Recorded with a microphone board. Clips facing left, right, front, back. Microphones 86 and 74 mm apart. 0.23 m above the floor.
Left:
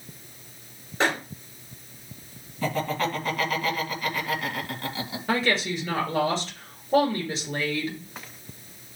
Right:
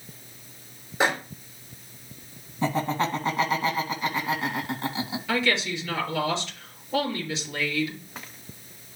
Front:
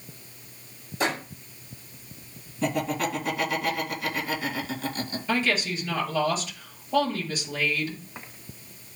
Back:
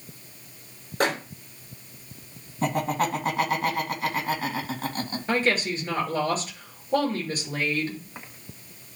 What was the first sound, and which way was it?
A microwave, 170° right.